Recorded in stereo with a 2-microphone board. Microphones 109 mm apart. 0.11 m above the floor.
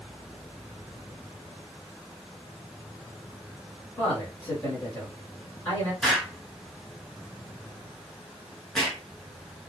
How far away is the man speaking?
About 1.8 m.